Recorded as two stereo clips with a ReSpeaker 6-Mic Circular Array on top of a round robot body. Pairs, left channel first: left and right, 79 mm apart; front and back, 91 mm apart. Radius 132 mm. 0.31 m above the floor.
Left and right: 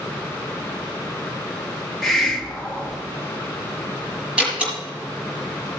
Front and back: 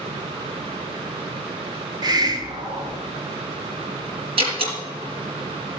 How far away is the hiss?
About 1.6 m.